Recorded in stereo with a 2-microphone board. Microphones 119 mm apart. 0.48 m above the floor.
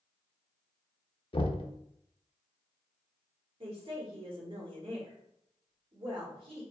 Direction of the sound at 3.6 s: 50° right (ahead or behind).